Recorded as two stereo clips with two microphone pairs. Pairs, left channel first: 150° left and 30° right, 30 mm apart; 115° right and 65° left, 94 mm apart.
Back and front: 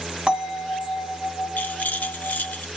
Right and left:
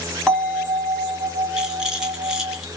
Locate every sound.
0.3 s a bell: 30° right, 1.3 m
1.6 s a rattle: 150° left, 0.8 m